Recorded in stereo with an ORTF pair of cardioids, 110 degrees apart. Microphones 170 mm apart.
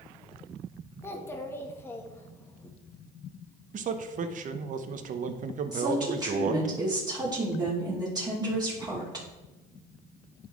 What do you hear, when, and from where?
1.0 s a child speaking: 15° left, 1.2 m
3.7 s a man speaking: 50° right, 0.9 m
5.7 s a woman speaking: 25° right, 2.5 m